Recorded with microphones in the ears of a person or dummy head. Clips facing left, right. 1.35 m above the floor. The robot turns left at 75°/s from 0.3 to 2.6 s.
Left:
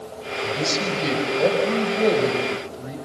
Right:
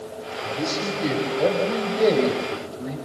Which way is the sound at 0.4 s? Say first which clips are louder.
Left 2 dB; 90° left.